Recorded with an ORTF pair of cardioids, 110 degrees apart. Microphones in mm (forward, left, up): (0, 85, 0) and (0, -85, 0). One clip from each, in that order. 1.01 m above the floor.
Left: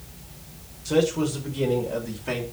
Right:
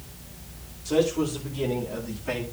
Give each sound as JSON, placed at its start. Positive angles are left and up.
{"t": 0.8, "sound": "a man speaking", "azimuth_deg": 20, "distance_m": 4.5}